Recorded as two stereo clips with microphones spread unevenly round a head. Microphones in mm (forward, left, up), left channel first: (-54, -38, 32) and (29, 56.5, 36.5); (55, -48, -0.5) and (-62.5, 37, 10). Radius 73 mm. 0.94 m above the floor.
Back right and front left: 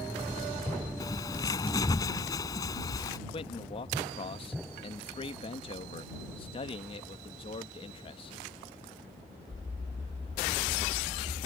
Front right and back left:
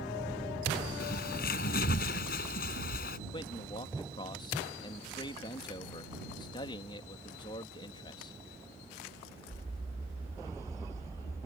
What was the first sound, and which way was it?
A bird, 65° right.